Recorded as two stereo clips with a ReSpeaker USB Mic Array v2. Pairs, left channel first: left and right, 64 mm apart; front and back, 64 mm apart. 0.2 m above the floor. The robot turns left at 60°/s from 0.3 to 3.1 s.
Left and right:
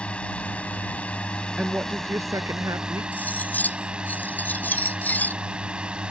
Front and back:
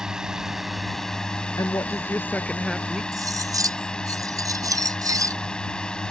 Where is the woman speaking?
15° right; by 3.0 s 100° right.